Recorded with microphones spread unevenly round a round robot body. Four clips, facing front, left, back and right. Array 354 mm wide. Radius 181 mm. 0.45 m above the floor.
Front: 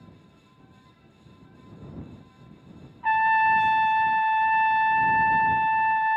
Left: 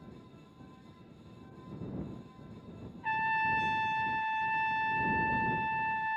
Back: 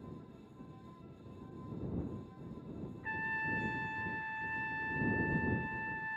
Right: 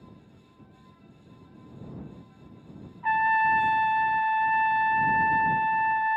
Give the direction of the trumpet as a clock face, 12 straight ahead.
1 o'clock.